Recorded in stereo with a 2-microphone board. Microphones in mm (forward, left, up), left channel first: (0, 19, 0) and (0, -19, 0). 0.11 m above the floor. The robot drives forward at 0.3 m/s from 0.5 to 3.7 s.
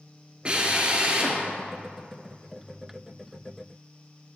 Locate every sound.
0.5 s a drill: 25° right (ahead or behind), 1.8 m